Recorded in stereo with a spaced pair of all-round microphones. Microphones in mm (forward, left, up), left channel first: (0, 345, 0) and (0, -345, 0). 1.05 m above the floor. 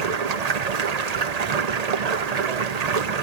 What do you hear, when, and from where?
0.0 s running water: 65° right (ahead or behind), 0.8 m